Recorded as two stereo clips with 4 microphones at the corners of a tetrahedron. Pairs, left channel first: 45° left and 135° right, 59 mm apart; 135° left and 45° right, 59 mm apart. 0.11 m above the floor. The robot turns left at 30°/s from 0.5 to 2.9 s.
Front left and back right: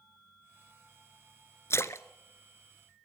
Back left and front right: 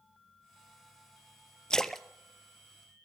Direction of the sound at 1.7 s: 60° left.